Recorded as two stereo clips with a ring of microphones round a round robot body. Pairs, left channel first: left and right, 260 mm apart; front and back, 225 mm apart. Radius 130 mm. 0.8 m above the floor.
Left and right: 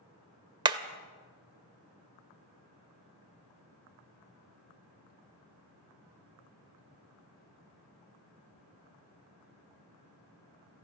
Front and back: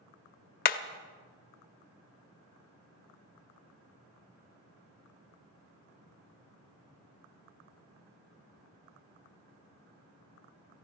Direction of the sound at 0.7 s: 25° right.